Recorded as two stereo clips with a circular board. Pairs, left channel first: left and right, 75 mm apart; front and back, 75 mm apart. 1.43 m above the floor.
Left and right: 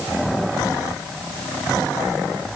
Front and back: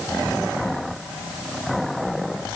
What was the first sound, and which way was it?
Only background noise.